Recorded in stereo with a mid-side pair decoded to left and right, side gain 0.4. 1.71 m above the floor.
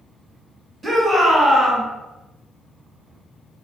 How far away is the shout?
About 1.6 m.